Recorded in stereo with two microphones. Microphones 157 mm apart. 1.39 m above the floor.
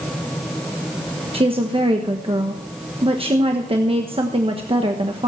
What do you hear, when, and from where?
1.3 s a woman speaking: 35° right (ahead or behind), 1.1 m